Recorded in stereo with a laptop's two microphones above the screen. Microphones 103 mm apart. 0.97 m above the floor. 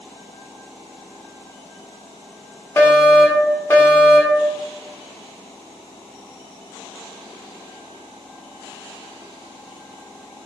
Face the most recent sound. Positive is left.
turn(degrees=20)  # may be behind; listen again after turning